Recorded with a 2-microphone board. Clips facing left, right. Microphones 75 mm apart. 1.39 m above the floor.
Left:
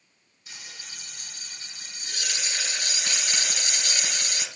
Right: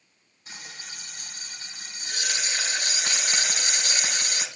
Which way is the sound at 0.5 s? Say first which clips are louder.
Right 3 dB; 40° right (ahead or behind).